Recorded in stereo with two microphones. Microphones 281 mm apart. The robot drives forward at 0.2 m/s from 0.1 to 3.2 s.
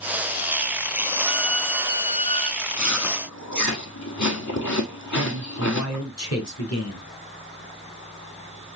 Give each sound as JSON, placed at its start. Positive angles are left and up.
{"t": 1.2, "sound": "a violin", "side_deg": 20, "distance_m": 1.6}
{"t": 2.6, "sound": "chewing", "side_deg": 85, "distance_m": 2.0}
{"t": 5.1, "sound": "a man speaking", "side_deg": 65, "distance_m": 2.5}